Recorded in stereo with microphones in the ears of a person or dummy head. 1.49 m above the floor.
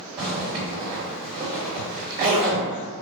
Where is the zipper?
30° right (ahead or behind), 1.6 m.